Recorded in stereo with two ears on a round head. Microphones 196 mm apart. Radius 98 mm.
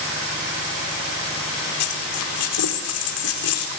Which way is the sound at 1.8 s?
75° left (ahead or behind).